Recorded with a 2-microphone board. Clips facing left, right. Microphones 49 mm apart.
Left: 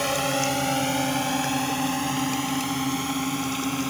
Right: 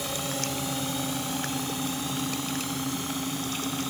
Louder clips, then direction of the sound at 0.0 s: Left 8 dB; 60° left (ahead or behind).